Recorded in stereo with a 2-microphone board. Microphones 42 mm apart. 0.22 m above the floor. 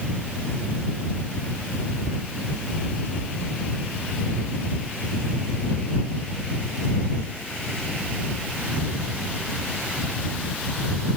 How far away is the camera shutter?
No camera shutter in this recording.